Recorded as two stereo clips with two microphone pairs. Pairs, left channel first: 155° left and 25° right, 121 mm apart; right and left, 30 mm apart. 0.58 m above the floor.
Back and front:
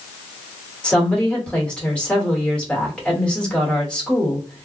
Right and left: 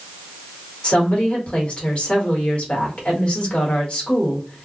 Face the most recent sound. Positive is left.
turn(degrees=-125)